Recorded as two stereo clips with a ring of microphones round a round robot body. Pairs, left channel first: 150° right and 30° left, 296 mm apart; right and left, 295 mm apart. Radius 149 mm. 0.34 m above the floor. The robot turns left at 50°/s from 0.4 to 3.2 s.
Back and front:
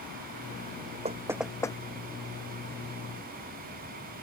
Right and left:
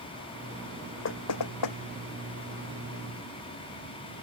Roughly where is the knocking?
Ahead right.